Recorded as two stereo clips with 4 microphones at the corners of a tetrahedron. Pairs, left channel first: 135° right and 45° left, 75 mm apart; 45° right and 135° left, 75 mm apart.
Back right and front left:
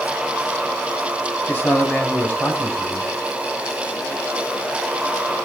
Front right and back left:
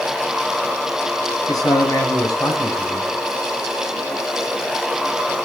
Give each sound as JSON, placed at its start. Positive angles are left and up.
{"t": 1.5, "sound": "a man speaking", "azimuth_deg": -75, "distance_m": 5.0}